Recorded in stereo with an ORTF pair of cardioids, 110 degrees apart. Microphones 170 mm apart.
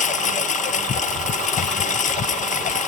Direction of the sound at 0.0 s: 45° left.